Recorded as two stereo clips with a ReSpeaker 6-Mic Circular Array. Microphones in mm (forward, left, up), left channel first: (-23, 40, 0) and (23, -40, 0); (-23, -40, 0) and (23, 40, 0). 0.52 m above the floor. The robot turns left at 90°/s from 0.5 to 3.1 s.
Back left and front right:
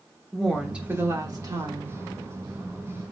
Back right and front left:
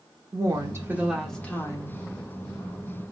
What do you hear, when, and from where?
0.3 s a woman speaking: 35° left, 1.0 m; by 2.0 s 100° right, 1.0 m